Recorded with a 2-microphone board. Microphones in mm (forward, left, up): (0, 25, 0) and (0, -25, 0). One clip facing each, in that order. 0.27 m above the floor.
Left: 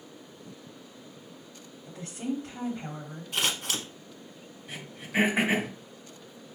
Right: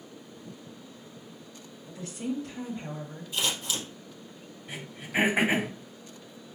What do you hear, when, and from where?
1.9 s a woman speaking: 30° left (ahead or behind), 1.3 m
3.3 s scissors: 65° left (ahead or behind), 1.0 m
4.7 s throat clearing: 5° right (ahead or behind), 2 m